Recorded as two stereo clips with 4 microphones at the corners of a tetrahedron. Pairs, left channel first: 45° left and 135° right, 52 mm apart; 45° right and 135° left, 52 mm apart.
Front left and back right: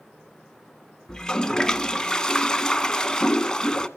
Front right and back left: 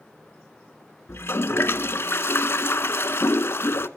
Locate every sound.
1.1 s a toilet flushing: 30° right, 0.6 m